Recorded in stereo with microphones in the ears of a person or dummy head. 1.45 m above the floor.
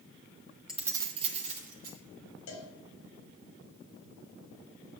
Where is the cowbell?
60° left (ahead or behind), 1.1 m.